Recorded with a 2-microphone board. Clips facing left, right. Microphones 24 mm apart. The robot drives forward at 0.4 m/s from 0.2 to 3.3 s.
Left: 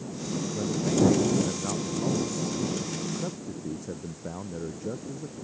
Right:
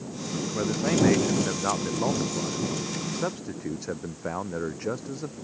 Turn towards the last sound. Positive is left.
turn(degrees=-60)  # may be behind; listen again after turning